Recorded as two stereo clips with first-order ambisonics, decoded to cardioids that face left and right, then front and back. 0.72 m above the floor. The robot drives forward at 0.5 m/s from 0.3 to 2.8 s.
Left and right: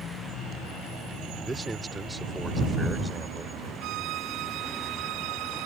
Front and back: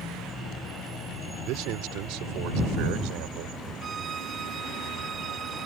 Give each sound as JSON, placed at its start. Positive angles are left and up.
{"t": 1.4, "sound": "a man speaking", "azimuth_deg": -170}
{"t": 3.8, "sound": "a violin", "azimuth_deg": -115}